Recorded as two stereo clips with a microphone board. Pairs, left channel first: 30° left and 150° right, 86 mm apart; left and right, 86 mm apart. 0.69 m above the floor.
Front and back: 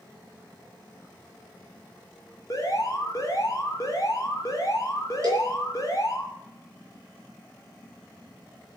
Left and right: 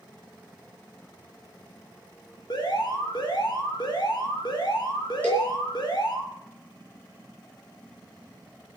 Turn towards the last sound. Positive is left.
turn(degrees=160)